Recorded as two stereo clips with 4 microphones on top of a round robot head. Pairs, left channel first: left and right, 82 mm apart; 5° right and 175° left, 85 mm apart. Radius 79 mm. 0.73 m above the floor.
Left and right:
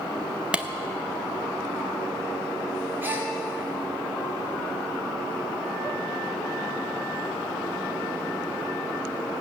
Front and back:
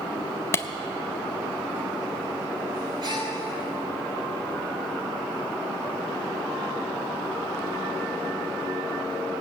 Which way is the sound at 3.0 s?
155° right.